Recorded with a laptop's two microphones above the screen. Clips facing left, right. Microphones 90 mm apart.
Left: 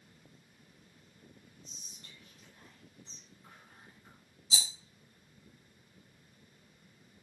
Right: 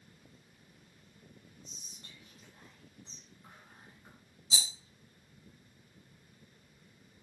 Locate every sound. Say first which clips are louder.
1.6 s whispering: right 1 dB; 30° right (ahead or behind), 1.3 m
4.5 s a rattle: even; 40° right (ahead or behind), 1.1 m